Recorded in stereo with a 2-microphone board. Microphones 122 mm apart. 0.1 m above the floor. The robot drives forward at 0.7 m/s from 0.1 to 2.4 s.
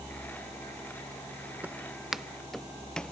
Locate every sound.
1.6 s footsteps: 10° right (ahead or behind); by 3.1 s 10° left (ahead or behind)